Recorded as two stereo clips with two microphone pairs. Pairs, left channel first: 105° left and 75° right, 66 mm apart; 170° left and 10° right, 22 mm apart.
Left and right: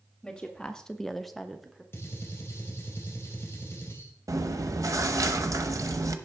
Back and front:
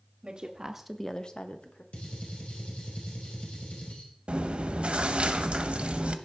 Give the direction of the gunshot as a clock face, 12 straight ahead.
7 o'clock.